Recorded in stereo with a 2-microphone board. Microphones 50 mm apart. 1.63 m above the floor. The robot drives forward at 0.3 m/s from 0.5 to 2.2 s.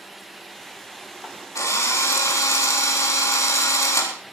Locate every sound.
1.6 s a drill: 85° left, 4 m